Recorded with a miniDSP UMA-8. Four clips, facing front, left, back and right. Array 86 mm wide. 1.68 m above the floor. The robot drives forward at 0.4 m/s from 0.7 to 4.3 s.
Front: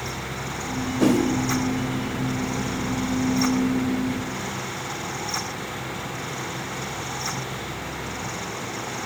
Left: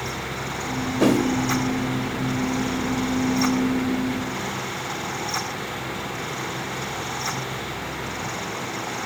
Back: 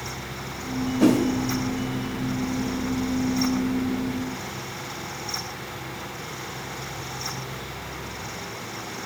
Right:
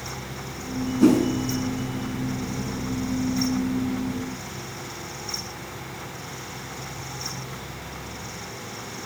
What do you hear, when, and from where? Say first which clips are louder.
1.0 s a whoosh: right 2 dB, back 1 dB; 75° left, 2.5 m; by 1.2 s 80° left, 2.5 m